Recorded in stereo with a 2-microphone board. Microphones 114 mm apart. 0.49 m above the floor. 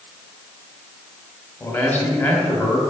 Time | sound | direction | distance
1.6 | a man speaking | 15° left (ahead or behind) | 1.9 m